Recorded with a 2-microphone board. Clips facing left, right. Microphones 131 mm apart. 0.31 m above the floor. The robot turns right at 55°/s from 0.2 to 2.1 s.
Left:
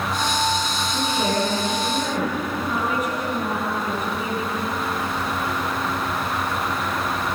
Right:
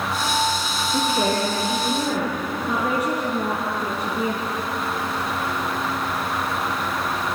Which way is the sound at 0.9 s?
100° right.